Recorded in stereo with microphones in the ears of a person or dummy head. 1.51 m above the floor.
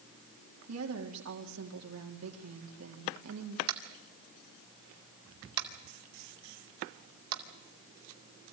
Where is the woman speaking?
75° right (ahead or behind), 3.5 m.